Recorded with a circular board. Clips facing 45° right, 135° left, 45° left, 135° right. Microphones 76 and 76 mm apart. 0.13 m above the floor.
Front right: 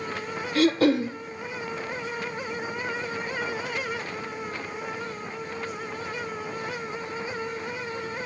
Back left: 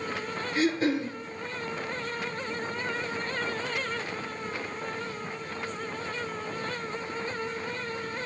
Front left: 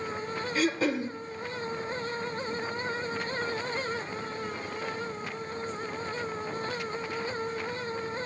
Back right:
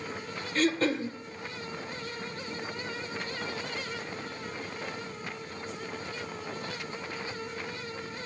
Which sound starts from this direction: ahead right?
Throat clearing, at 0.6 s.